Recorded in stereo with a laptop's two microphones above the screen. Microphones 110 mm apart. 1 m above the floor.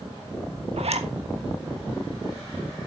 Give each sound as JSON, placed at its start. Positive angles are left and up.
{"t": 0.8, "sound": "a zipper", "side_deg": -65, "distance_m": 1.4}